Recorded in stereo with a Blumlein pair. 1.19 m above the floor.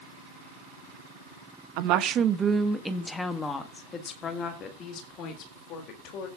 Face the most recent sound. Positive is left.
turn(degrees=40)